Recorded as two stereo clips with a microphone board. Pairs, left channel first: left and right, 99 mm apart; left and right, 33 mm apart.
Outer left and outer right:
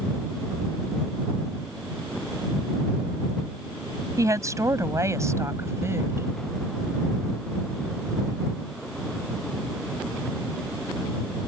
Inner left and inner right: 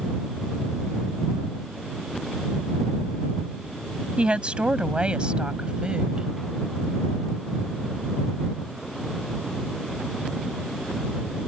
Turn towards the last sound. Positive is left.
turn(degrees=-25)  # may be behind; listen again after turning